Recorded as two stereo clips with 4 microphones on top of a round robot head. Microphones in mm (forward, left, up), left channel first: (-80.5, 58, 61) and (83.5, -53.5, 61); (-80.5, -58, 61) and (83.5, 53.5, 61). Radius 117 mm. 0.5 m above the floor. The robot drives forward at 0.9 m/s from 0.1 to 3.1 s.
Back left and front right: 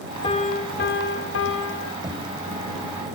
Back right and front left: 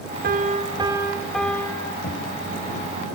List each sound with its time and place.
0.2 s a piano: 80° left, 1.2 m; by 1.9 s 140° left, 1.7 m
2.0 s knocking: 105° right, 2.5 m; by 2.3 s 110° right, 2.5 m